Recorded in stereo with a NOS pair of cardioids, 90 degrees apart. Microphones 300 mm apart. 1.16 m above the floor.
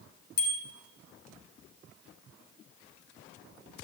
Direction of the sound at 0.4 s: 60° left.